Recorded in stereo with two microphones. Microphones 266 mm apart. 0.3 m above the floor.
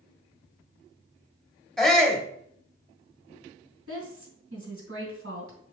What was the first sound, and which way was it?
A shout, centre (ahead or behind).